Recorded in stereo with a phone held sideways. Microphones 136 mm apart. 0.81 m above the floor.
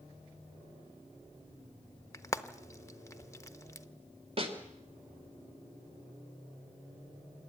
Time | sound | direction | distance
2.1 | frying | 20° left (ahead or behind) | 0.9 m
4.4 | a snare drum | 45° right (ahead or behind) | 3 m